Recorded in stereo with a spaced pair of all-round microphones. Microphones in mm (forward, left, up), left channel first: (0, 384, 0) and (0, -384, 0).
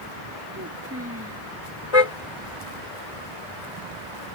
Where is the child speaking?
15° right (ahead or behind).